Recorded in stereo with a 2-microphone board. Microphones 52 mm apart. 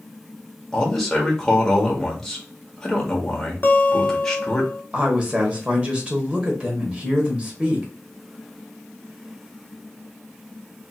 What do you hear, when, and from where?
0.7 s a man speaking: 10° left (ahead or behind), 1.0 m
3.6 s a guitar: 40° left (ahead or behind), 0.6 m
4.9 s a woman speaking: 25° right (ahead or behind), 1.0 m